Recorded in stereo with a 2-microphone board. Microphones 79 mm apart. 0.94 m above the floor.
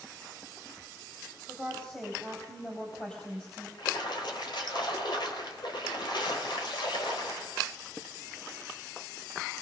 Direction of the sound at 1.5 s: 15° left (ahead or behind).